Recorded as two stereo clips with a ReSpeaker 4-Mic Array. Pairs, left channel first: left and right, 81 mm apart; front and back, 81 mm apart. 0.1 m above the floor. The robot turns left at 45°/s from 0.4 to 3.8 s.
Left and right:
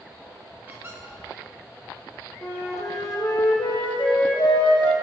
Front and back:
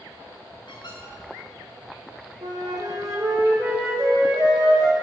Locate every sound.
0.7 s a squeak: 15° right, 2.5 m; by 1.0 s 30° right, 2.5 m
2.4 s a flute: 160° left, 2 m; by 4.9 s 100° left, 2 m